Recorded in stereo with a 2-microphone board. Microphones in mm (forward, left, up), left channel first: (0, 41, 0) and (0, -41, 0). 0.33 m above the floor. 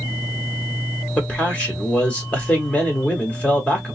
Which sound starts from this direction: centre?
A man speaking, at 1.2 s.